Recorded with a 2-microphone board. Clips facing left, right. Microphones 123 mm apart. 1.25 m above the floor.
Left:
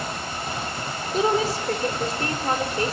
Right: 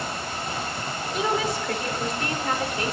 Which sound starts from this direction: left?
A woman speaking, at 1.1 s.